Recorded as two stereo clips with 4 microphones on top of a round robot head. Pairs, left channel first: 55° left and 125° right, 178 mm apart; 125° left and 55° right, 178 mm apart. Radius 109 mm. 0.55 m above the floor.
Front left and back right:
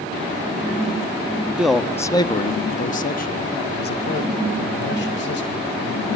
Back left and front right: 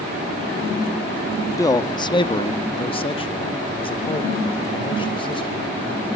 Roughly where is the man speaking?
Behind.